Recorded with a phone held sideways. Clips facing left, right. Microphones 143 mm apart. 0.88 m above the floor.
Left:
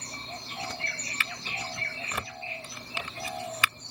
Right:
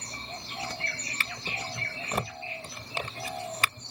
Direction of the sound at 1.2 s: 40° right (ahead or behind).